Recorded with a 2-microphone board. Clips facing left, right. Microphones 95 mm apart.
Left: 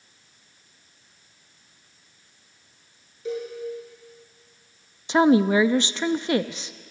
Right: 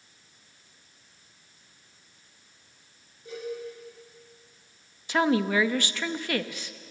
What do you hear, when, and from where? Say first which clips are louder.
3.2 s a cowbell: left 6 dB; 90° left, 8 m
5.1 s a woman speaking: left 6 dB; 20° left (ahead or behind), 0.6 m